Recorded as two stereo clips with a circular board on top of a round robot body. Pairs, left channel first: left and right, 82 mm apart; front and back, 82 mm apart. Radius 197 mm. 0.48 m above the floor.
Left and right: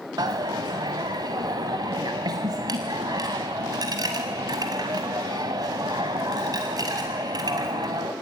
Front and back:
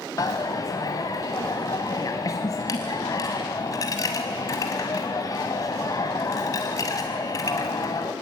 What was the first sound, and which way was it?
A dropped coin, 50° right.